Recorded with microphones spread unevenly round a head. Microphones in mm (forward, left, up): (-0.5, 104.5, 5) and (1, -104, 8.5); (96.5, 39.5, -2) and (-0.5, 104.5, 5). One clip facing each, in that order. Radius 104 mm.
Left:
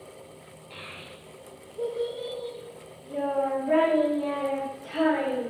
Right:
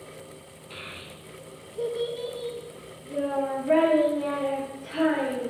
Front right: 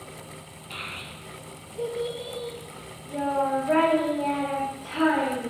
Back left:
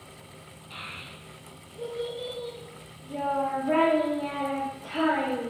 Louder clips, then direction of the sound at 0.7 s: Right 2 dB, front right 4 dB; 20° right.